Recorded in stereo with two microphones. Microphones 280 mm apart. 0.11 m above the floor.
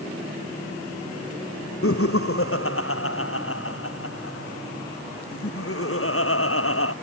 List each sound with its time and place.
1.8 s laughter: 55° left (ahead or behind)